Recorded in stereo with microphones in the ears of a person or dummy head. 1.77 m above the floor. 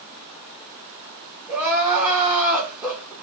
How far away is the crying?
About 1.2 m.